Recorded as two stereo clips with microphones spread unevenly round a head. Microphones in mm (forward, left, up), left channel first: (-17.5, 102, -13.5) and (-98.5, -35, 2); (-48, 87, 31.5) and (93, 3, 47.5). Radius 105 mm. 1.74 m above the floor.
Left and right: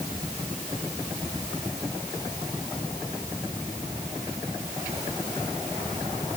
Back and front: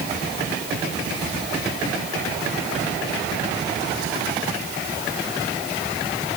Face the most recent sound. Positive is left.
No sound to turn to.